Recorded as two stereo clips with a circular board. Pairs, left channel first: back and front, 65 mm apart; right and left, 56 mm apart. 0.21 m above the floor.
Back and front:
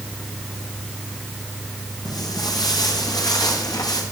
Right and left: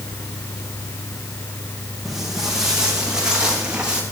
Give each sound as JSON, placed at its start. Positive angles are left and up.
{"t": 2.0, "sound": "footsteps", "azimuth_deg": 170, "distance_m": 6.5}